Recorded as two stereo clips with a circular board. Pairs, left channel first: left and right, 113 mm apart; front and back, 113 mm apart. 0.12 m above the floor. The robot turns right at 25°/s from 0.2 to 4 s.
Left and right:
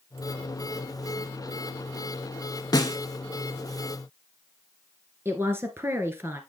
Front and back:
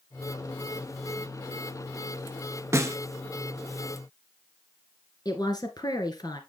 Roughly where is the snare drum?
Behind left.